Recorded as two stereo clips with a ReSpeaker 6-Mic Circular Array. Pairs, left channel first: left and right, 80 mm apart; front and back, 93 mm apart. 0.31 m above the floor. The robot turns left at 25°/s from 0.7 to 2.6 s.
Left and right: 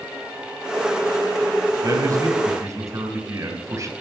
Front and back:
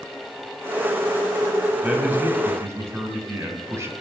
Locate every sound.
1.8 s a man speaking: 110° right, 2.5 m; by 3.9 s 130° right, 2.5 m